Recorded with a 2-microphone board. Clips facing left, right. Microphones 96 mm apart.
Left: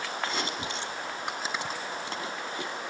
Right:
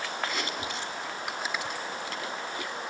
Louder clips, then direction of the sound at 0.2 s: Left 1 dB; 30° left (ahead or behind).